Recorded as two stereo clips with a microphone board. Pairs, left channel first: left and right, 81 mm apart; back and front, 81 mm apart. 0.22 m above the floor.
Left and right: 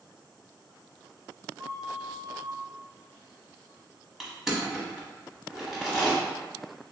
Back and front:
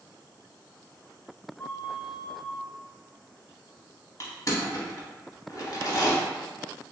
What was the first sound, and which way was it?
A flute, 110° right.